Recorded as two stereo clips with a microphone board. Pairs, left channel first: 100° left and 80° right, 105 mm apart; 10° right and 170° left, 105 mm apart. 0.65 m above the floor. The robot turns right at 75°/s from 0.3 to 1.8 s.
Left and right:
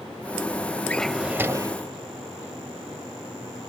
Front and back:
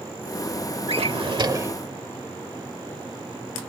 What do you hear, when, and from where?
0.9 s a drawer: 175° left; by 1.8 s 120° right